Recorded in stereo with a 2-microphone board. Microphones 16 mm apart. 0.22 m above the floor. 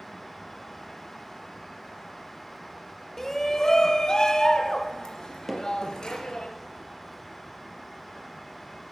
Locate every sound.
3.2 s a shout: 25° left (ahead or behind), 1.1 m; by 6.5 s 55° left (ahead or behind), 3.5 m
5.5 s hammering: 10° right (ahead or behind), 3.5 m